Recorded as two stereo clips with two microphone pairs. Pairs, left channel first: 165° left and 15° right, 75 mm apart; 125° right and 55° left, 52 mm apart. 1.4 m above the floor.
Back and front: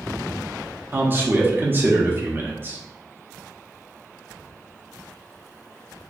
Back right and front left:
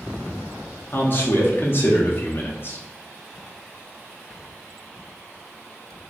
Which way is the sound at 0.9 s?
80° right.